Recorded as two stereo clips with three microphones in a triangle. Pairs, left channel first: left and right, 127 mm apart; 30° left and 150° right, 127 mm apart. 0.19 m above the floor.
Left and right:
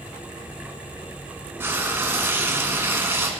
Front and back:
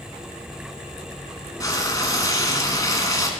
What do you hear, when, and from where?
1.6 s frying: 25° right, 0.9 m